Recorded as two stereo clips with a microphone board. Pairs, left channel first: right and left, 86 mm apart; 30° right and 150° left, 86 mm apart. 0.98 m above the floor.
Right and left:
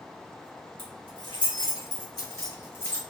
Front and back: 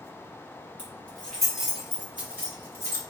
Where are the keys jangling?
100° right, 1.2 m; by 3.0 s 155° right, 1.3 m.